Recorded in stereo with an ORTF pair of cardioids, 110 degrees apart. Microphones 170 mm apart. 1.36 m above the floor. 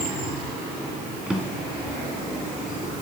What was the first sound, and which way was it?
A drawer, 5° right.